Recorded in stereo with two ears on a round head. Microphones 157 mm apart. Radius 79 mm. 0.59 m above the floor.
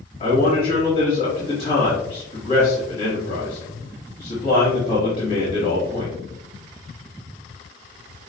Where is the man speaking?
30° left (ahead or behind), 1.4 m.